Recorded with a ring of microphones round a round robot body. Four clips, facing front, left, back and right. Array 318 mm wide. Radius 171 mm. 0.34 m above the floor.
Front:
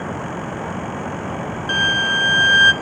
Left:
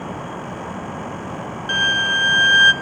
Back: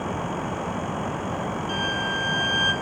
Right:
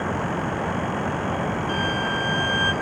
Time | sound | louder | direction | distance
1.7 | a violin | left 3 dB, front 6 dB | 45° left | 0.6 m